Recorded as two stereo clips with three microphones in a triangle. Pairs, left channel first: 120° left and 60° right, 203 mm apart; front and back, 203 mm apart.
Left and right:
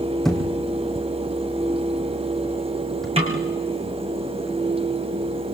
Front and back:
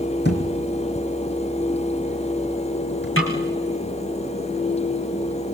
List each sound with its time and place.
0.2 s a thud: 30° left, 4 m
3.2 s a snare drum: straight ahead, 4.5 m